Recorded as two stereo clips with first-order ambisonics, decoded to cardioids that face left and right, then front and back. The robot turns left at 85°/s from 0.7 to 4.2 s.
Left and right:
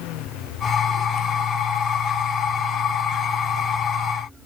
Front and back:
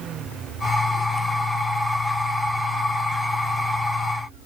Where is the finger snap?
No finger snap in this recording.